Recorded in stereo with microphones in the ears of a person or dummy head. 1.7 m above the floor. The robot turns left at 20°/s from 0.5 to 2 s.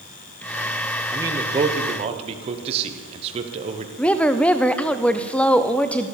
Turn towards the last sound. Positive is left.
turn(degrees=10)  # may be behind; listen again after turning